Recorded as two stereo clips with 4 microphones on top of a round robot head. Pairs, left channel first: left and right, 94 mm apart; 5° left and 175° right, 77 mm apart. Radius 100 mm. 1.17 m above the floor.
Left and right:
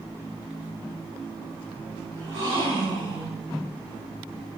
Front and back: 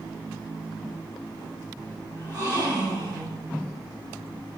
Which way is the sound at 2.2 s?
125° right.